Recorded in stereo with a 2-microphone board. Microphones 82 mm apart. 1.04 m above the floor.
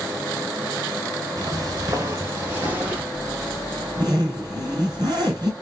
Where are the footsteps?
45° right (ahead or behind), 1.5 m; by 3.0 s 20° right (ahead or behind), 1.8 m.